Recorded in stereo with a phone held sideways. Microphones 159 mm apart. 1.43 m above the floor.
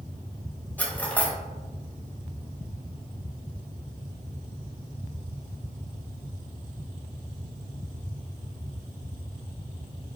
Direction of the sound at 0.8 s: 10° left (ahead or behind).